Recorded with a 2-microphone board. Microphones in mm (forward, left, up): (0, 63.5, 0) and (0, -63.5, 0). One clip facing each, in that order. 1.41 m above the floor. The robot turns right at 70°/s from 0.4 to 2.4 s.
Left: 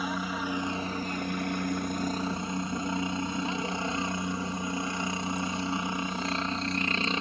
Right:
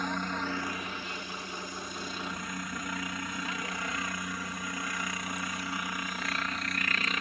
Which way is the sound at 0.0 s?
5° left.